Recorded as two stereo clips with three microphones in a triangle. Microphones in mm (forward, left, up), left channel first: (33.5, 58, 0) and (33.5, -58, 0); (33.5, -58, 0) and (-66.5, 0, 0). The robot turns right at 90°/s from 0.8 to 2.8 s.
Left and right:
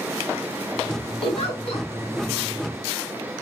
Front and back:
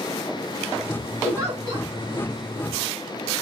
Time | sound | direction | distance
1.2 | a giggle | 70° left | 3 m